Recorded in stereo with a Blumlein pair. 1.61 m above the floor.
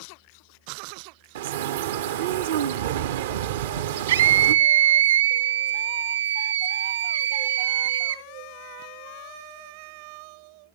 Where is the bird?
55° right, 0.8 m.